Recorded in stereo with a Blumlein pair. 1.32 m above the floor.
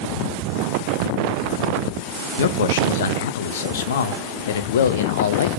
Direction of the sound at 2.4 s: 60° left.